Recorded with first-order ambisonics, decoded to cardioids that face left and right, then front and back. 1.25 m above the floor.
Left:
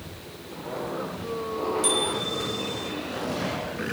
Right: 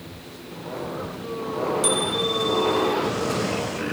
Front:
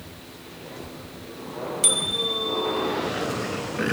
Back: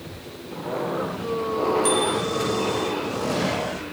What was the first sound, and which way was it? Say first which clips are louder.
A bicycle bell: right 3 dB, back 2 dB; 10° right.